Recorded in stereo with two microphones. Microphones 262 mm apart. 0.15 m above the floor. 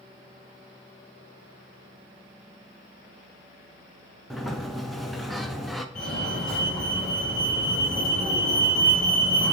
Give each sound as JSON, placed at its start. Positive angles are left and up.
{"t": 4.3, "sound": "a sliding door", "side_deg": 0, "distance_m": 0.7}
{"t": 6.0, "sound": "a fire alarm", "side_deg": 5, "distance_m": 2.5}